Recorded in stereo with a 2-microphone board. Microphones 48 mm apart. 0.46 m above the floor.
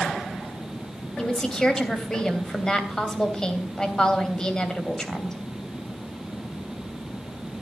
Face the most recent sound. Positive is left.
turn(degrees=15)  # may be behind; listen again after turning